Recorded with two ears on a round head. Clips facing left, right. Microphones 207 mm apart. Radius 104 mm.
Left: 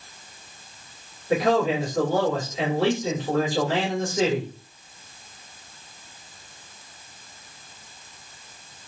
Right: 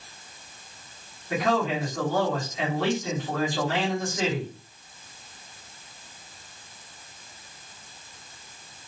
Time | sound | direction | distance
1.3 | a man speaking | 25° left (ahead or behind) | 2.0 m